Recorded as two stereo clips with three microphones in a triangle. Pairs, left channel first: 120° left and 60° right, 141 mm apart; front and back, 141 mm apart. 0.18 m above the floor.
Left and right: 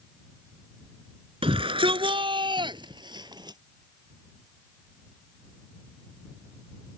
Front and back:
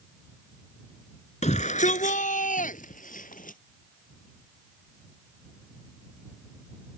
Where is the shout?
20° right; by 3.6 s straight ahead.